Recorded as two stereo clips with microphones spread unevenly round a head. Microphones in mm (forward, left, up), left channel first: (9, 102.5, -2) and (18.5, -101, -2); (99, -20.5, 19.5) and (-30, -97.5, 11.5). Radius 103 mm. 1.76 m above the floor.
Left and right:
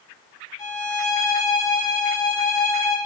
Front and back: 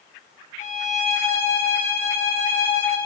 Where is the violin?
30° left, 1.8 m.